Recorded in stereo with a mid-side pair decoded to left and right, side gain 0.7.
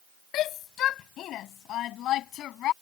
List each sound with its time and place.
0.3 s a shout: 50° left